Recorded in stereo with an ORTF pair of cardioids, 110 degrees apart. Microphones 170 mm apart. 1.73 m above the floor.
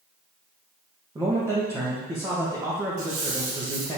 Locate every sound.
1.1 s a man speaking: 20° right, 2.5 m
3.0 s a squeak: 60° right, 3.5 m